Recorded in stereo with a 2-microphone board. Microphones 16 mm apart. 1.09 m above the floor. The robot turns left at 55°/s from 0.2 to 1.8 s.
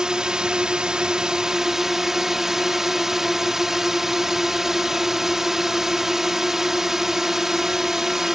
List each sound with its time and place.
0.0 s a drone: 60° right; by 8.4 s 150° right